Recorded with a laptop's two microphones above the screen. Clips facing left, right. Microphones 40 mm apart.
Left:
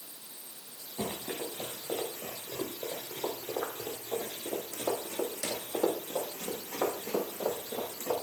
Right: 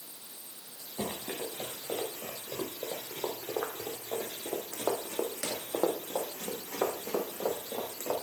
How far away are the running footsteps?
About 4.5 m.